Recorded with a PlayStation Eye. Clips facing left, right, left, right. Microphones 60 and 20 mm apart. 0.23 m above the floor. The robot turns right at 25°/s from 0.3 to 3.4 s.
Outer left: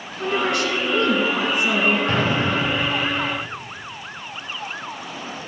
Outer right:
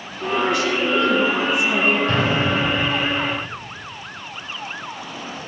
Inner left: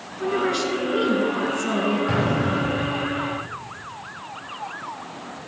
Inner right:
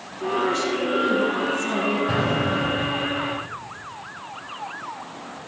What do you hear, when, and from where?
0.2 s a woman speaking: 100° left, 3.5 m; by 2.0 s 140° left, 3.5 m
2.1 s an explosion: 35° left (ahead or behind), 4.5 m; by 2.9 s 55° left (ahead or behind), 4.5 m